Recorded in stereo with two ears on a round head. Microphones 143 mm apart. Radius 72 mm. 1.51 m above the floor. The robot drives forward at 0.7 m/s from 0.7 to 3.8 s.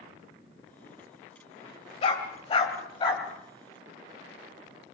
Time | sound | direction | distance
2.0 | a dog barking | 40° left (ahead or behind) | 2.5 m